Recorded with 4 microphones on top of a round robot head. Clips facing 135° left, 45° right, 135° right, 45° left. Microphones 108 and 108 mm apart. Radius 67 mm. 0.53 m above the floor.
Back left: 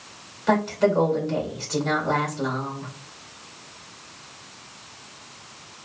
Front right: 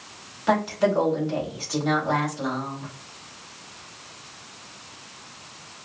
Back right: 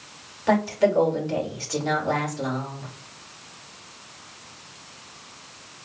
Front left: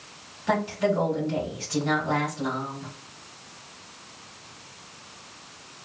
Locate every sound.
0.5 s a woman speaking: 130° right, 2 m